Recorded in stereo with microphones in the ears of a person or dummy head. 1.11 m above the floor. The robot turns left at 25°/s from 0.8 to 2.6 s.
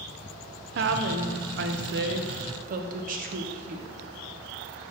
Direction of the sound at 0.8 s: 80° right.